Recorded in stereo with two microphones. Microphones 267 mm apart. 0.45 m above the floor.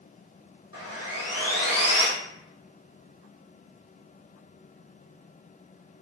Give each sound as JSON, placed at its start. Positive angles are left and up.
{"t": 0.7, "sound": "sawing", "side_deg": 60, "distance_m": 2.5}